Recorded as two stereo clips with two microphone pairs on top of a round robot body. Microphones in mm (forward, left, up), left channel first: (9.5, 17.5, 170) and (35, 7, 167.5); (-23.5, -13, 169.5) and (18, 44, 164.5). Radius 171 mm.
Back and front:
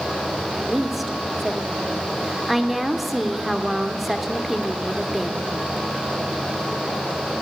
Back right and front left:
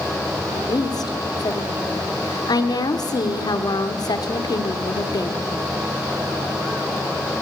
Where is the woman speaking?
105° right, 2 m.